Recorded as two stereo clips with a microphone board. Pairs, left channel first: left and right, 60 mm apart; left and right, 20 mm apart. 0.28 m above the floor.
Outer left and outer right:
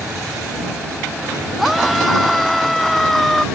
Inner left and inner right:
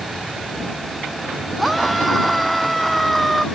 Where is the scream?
Centre (ahead or behind); by 3.5 s 5° left (ahead or behind).